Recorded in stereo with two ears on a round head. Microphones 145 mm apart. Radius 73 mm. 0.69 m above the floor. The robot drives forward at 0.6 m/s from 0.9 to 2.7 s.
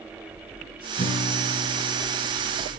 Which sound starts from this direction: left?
A guitar, at 1.0 s.